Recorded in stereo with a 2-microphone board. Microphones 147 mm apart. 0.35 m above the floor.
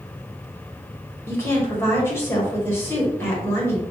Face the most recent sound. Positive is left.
turn(degrees=15)  # may be behind; listen again after turning